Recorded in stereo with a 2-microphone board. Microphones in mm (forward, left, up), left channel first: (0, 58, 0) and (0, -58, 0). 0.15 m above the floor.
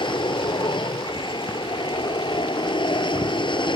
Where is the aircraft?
45° left (ahead or behind).